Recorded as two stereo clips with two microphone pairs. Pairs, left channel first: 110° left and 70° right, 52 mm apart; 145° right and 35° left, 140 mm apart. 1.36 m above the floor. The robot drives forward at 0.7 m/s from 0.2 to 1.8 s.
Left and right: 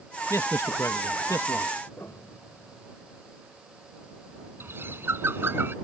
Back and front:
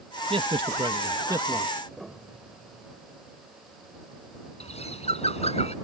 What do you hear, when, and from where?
0.3 s a man speaking: 80° left; by 1.8 s 105° left
1.9 s a piano: 120° left
4.6 s a bird: 110° right